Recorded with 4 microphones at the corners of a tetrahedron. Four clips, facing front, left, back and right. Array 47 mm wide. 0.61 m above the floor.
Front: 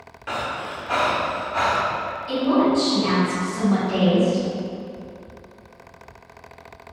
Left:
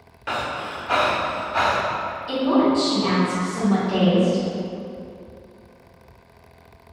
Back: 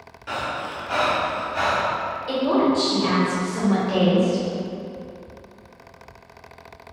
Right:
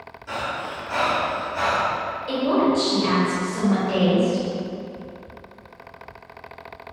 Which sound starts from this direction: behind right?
A woman speaking, at 2.3 s.